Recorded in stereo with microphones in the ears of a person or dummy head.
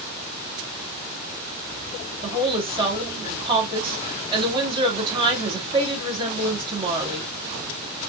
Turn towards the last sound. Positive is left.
turn(degrees=-25)  # may be behind; listen again after turning